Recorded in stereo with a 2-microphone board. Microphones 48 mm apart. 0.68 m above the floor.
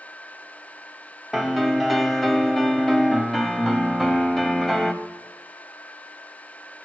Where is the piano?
Centre (ahead or behind), 0.9 m.